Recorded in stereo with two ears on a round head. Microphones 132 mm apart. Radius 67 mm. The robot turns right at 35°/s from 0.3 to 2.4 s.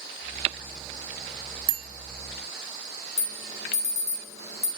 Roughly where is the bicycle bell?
Right.